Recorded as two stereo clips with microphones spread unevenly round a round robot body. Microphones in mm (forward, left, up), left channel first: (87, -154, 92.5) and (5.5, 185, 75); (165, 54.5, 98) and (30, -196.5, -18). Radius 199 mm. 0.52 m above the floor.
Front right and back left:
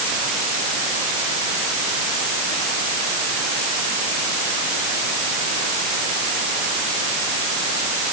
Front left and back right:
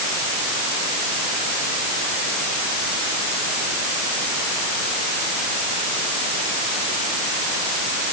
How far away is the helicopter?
I don't hear a helicopter.